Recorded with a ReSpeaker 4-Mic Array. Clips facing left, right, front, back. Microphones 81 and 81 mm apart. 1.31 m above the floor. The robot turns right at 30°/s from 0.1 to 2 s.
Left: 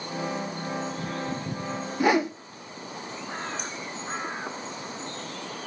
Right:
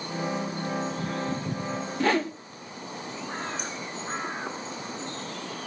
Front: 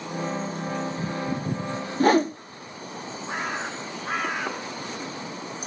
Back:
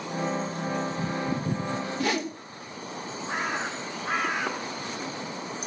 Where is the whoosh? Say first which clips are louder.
Left 3 dB, front 11 dB; 20° left, 0.7 m.